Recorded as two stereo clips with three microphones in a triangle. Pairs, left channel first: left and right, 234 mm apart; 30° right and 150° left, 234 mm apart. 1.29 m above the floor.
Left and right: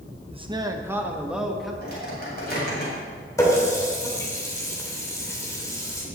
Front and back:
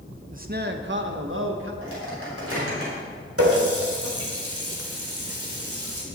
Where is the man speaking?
150° right, 0.7 m; by 1.7 s straight behind, 1.5 m.